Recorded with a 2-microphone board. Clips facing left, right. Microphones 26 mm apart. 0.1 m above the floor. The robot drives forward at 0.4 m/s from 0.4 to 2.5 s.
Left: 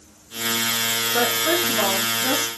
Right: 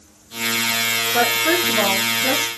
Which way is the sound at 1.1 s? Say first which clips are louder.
Right 3 dB; 25° right (ahead or behind).